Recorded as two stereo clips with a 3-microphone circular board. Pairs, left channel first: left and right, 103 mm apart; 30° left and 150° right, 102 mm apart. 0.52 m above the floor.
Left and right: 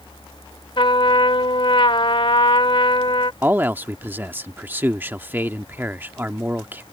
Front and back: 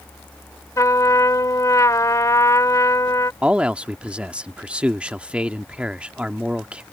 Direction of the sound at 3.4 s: 95° right.